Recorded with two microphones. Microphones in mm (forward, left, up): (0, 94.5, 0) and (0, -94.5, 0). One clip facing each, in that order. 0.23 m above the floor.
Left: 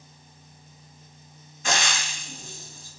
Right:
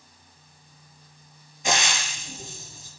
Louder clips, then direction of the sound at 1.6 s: Right 2 dB; 15° right (ahead or behind).